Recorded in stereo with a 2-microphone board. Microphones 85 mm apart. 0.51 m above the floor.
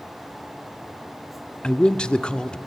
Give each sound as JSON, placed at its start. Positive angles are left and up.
{"t": 1.6, "sound": "a man speaking", "side_deg": 10, "distance_m": 0.8}